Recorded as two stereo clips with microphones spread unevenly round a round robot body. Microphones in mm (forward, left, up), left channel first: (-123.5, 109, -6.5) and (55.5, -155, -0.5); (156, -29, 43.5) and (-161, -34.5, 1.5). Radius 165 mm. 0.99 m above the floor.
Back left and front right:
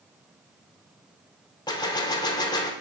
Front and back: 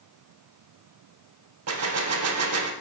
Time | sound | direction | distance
1.7 | a gunshot | 165° right | 0.7 m